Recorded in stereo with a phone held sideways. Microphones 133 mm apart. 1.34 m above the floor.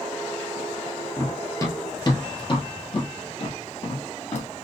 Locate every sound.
1.2 s running footsteps: 15° left (ahead or behind), 1.4 m; by 4.5 s 60° left (ahead or behind), 2.5 m